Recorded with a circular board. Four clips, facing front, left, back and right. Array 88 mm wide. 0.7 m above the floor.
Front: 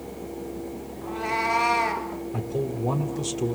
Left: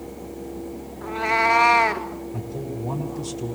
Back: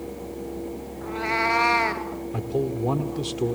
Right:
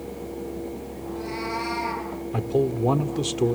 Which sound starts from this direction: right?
A man speaking, at 2.3 s.